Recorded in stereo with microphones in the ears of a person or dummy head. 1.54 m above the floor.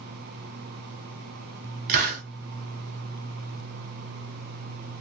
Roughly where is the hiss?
Right.